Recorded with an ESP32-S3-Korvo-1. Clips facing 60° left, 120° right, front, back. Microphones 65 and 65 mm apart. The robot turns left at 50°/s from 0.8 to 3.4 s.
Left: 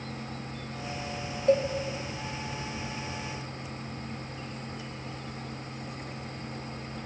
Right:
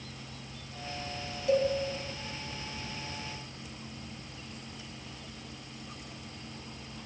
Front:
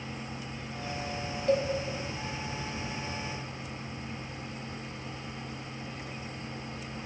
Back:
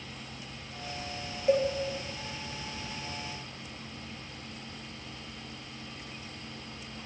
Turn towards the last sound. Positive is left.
turn(degrees=10)